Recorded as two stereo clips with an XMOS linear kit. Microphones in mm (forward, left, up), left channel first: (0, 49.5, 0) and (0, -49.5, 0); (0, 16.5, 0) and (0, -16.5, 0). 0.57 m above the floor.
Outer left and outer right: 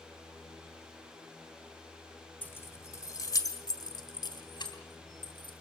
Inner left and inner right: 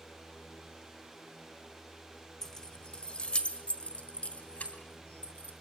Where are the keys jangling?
20° left (ahead or behind), 0.9 m; by 5.5 s 55° left (ahead or behind), 3.5 m.